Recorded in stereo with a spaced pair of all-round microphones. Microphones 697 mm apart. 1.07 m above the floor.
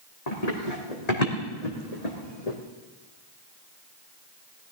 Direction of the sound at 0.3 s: 65° left (ahead or behind).